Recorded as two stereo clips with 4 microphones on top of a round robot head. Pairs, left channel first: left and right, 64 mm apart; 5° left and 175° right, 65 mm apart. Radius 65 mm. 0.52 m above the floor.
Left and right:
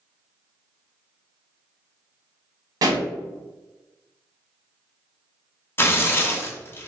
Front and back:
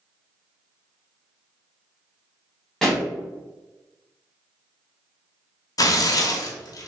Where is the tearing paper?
35° left, 0.8 m.